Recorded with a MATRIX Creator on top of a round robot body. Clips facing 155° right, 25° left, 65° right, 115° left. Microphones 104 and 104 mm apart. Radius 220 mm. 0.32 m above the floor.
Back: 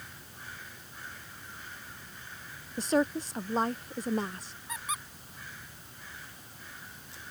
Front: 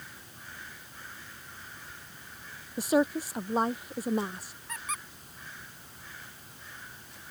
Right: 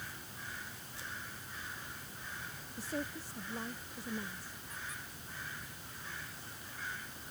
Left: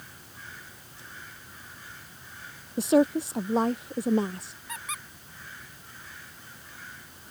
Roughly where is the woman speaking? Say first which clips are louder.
Front 2 dB, left 19 dB; left.